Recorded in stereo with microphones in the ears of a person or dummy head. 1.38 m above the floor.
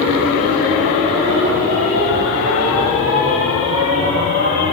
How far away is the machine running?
About 2 m.